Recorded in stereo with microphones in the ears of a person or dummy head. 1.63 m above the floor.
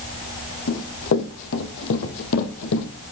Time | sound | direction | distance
0.7 | running footsteps | 65° left (ahead or behind) | 4.5 m